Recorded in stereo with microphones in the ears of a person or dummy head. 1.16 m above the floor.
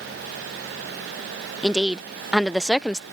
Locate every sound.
1.6 s a woman speaking: centre (ahead or behind)